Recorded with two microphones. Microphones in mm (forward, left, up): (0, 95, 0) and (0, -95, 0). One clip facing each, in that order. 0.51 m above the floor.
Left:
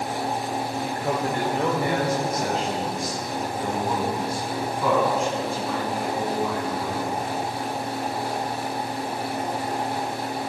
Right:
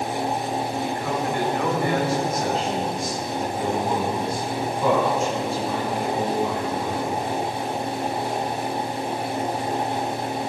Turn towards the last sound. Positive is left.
turn(degrees=-25)  # may be behind; listen again after turning